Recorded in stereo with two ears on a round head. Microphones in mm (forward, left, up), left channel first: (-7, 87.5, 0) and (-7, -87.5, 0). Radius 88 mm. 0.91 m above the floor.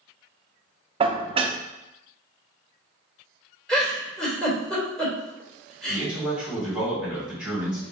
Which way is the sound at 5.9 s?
5° right (ahead or behind).